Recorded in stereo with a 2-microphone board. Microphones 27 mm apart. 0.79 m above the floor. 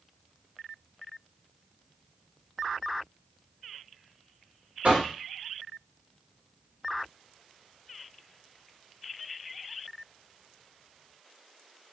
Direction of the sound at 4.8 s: 65° right (ahead or behind).